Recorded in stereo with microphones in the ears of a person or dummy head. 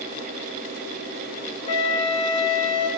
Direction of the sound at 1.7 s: 30° left (ahead or behind).